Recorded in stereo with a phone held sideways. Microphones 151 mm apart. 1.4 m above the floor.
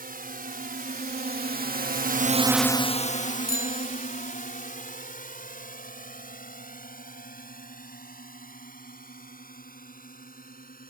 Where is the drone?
65° right (ahead or behind); by 10.9 s 60° left (ahead or behind).